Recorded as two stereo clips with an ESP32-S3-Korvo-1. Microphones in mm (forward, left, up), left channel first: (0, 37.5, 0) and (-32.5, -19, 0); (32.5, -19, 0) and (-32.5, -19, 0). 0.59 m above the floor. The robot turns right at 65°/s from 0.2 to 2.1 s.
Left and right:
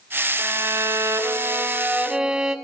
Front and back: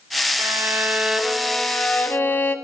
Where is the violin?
155° right, 0.6 m; by 2.5 s 45° right, 0.6 m.